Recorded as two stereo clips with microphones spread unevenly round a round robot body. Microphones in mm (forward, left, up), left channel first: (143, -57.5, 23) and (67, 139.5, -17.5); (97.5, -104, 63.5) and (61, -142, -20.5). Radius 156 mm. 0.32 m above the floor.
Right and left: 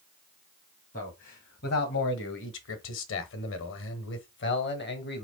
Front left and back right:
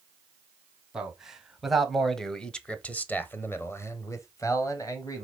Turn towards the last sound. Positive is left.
turn(degrees=-30)